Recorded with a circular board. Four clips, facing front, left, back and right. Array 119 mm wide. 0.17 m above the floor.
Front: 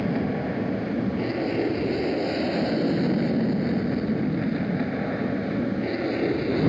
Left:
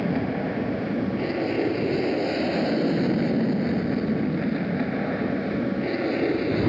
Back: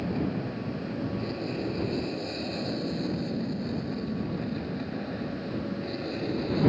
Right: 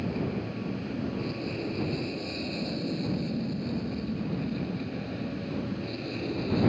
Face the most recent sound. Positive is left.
turn(degrees=60)